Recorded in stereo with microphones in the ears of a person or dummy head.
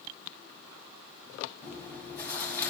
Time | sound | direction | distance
1.6 | chewing | 10° left (ahead or behind) | 2.5 m